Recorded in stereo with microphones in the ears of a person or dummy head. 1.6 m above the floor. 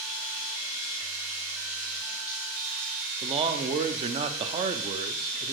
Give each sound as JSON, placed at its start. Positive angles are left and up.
{"t": 0.0, "sound": "running water", "side_deg": -5, "distance_m": 3.5}
{"t": 3.2, "sound": "a man speaking", "side_deg": -30, "distance_m": 0.6}